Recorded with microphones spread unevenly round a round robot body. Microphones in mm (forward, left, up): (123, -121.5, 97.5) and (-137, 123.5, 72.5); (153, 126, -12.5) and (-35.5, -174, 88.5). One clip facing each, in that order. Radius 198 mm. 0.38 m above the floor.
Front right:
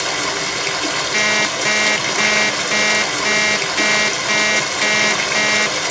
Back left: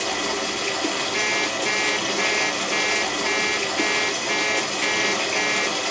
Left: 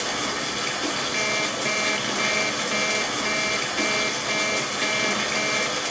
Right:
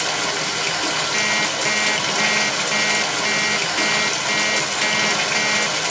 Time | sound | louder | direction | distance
0.0 | running water | front right 2 dB, right 2 dB | 60° right | 0.9 m
1.1 | an alarm clock | front right 3 dB, right 2 dB | 45° right | 0.7 m